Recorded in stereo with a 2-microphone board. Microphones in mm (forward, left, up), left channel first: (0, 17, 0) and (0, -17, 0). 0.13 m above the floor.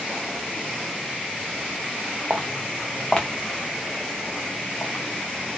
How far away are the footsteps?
About 0.6 m.